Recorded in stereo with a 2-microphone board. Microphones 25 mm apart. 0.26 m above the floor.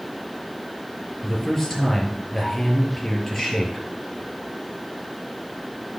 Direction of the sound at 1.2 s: 20° left (ahead or behind).